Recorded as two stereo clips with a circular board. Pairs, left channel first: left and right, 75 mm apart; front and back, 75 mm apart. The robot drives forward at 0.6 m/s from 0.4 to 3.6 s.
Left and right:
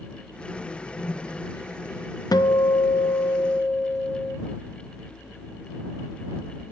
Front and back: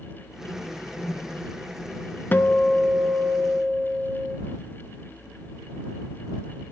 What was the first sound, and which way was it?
A whoosh, 45° left.